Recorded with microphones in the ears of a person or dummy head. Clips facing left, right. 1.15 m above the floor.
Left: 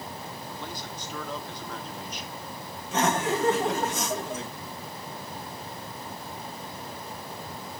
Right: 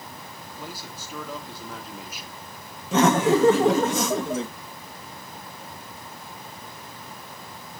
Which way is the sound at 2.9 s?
60° right (ahead or behind).